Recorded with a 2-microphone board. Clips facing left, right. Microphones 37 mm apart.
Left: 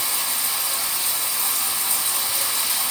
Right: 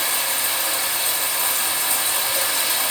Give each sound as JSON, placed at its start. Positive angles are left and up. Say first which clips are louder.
{"t": 0.0, "sound": "running water", "louder": "right 4 dB", "side_deg": -55, "distance_m": 1.1}